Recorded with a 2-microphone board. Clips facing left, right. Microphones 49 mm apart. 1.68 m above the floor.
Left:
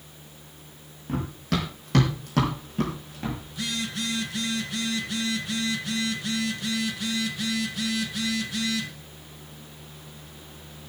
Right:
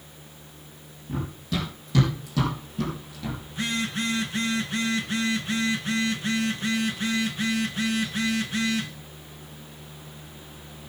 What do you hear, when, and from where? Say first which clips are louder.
1.1 s running footsteps: left 2 dB; 65° left (ahead or behind), 5.5 m; by 3.4 s 35° left (ahead or behind), 4.5 m
3.5 s a phone buzzing: right 3 dB; 35° right (ahead or behind), 2 m